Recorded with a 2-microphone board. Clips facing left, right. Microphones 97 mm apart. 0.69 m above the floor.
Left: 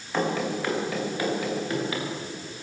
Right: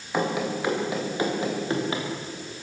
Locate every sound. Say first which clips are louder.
0.1 s running footsteps: even; 10° right (ahead or behind), 5.5 m; by 2.1 s 30° right (ahead or behind), 6 m